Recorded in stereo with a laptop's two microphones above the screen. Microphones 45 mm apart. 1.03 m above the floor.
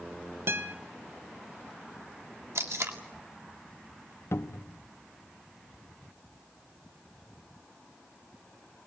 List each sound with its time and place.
0.5 s a guitar: 65° right (ahead or behind), 1.5 m
2.5 s tape being pulled: 80° right, 2.0 m
4.3 s a cupboard door: 75° left (ahead or behind), 0.9 m